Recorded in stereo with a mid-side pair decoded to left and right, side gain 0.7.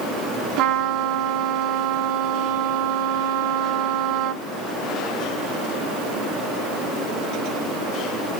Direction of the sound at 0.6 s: 65° right.